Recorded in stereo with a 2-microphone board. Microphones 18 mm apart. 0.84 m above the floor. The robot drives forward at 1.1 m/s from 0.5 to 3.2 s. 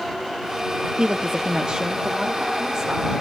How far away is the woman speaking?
About 1.1 m.